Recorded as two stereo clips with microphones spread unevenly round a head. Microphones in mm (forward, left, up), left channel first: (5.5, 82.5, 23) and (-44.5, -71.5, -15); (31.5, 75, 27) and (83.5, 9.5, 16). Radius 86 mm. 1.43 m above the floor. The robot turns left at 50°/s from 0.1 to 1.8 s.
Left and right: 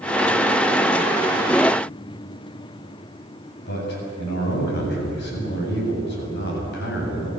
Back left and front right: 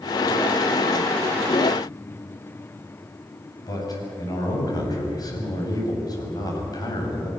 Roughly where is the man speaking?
Left.